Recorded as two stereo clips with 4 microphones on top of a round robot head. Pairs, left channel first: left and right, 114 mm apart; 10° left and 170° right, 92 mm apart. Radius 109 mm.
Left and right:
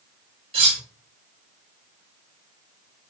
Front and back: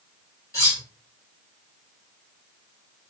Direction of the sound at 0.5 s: 50° right.